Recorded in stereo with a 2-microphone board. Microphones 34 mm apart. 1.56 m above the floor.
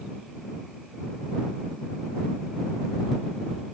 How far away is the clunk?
I don't hear a clunk.